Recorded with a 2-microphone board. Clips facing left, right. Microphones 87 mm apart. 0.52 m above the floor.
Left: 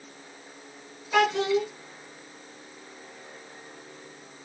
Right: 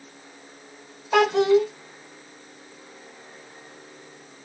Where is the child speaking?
55° right (ahead or behind), 1.0 m.